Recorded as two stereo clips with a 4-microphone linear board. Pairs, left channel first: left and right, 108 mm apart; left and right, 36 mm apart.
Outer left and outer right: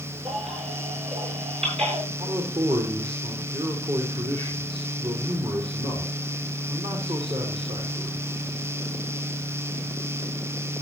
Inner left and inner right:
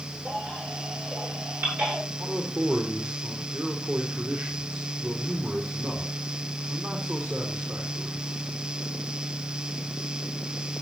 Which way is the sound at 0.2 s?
65° right (ahead or behind).